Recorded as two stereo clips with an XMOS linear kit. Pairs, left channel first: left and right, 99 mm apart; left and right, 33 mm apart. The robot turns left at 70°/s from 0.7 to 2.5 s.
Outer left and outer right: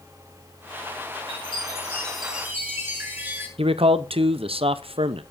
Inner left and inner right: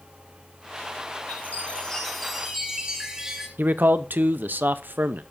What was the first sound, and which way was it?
A chime, 65° left.